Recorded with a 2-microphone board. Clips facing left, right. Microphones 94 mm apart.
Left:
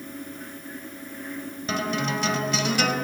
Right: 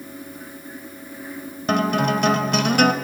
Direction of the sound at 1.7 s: 60° right (ahead or behind).